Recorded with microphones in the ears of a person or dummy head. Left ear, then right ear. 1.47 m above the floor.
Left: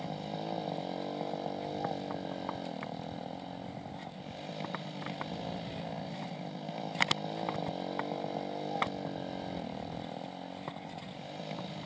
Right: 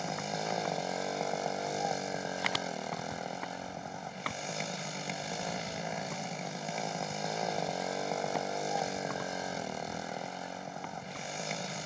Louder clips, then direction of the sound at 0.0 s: Right 4 dB; 65° right (ahead or behind).